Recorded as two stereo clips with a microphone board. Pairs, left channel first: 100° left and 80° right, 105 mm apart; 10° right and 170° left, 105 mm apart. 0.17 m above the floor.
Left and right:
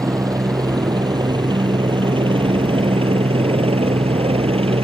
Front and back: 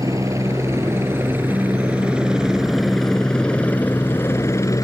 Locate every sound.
0.0 s a helicopter: 135° right; by 4.8 s 65° right